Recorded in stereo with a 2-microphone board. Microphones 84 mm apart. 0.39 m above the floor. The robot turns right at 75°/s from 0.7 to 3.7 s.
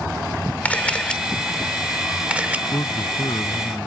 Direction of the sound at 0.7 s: 20° left (ahead or behind).